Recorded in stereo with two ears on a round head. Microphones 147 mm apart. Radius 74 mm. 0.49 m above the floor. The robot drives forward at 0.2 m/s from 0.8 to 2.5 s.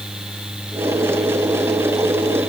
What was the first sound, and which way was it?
Only background noise.